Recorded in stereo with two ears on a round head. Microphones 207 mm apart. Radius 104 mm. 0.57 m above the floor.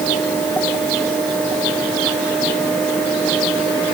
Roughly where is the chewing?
I don't hear chewing.